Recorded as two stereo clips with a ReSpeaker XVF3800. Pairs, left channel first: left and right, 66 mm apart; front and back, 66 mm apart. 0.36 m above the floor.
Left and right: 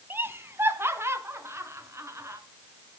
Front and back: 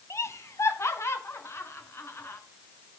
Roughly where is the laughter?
Ahead right.